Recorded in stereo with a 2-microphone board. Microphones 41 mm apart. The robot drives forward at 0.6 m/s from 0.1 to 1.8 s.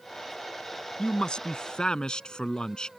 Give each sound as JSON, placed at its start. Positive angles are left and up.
{"t": 1.0, "sound": "a man speaking", "side_deg": 25}